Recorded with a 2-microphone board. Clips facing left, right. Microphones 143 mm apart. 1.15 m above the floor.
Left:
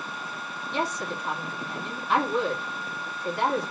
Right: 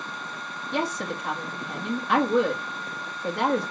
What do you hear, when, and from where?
0.7 s a woman speaking: 75° right (ahead or behind), 2 m